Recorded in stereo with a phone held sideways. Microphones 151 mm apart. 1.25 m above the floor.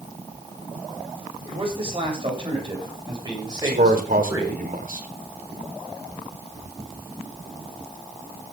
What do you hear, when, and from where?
1.4 s a man speaking: 40° right (ahead or behind), 8 m; by 4.6 s 25° right (ahead or behind), 7.5 m
3.6 s a man speaking: 75° right (ahead or behind), 3.5 m